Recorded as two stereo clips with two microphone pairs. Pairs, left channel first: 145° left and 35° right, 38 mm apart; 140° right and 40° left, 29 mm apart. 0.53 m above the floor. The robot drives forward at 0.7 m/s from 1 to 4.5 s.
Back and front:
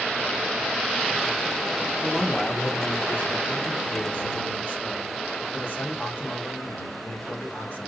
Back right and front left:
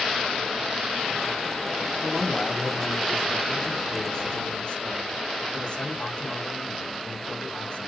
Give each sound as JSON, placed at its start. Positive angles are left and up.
{"t": 2.0, "sound": "a man speaking", "azimuth_deg": 90, "distance_m": 1.1}